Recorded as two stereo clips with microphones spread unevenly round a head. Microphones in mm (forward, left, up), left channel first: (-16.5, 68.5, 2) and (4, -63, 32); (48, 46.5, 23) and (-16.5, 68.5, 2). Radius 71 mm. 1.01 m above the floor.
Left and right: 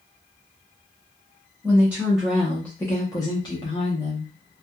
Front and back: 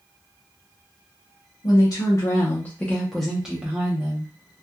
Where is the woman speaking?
Straight ahead, 1.0 m; by 4.3 s 130° left, 1.1 m.